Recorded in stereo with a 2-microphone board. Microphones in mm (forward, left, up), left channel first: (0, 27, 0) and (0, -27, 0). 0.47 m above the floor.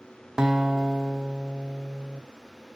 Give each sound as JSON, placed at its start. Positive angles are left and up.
{"t": 0.4, "sound": "a guitar", "side_deg": -15, "distance_m": 0.8}